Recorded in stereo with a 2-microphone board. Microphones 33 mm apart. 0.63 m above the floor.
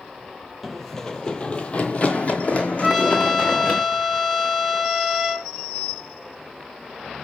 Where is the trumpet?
Centre (ahead or behind), 1.2 m.